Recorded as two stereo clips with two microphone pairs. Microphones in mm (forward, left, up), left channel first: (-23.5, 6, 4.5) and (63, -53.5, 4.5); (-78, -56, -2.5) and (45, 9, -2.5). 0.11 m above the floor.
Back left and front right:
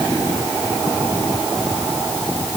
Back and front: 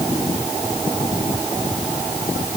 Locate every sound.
Only background noise.